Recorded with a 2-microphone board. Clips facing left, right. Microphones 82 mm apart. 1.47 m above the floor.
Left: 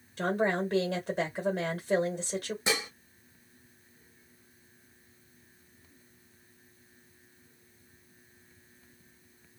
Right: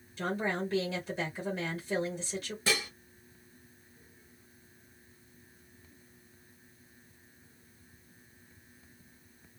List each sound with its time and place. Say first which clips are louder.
0.2 s a woman speaking: left 5 dB; 45° left (ahead or behind), 1.2 m
2.7 s dishes clattering: even; 20° left (ahead or behind), 0.7 m